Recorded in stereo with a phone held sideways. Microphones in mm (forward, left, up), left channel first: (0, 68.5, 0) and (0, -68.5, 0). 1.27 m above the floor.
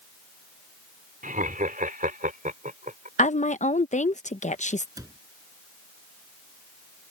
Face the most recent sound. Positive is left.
turn(degrees=-25)  # may be behind; listen again after turning